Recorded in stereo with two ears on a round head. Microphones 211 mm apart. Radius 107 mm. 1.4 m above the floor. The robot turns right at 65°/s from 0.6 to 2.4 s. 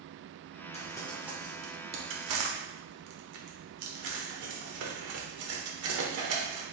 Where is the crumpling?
30° left (ahead or behind), 1.1 m; by 6.6 s 75° right (ahead or behind), 1.1 m.